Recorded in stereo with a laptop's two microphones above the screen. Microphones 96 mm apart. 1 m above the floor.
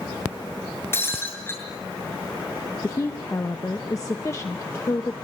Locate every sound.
0.9 s breaking glass: 25° left (ahead or behind), 7 m
2.8 s a woman speaking: 35° left (ahead or behind), 0.8 m